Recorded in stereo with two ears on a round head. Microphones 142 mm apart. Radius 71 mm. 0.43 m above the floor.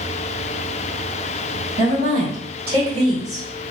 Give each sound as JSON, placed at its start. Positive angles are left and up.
{"t": 1.8, "sound": "a woman speaking", "side_deg": -55, "distance_m": 1.9}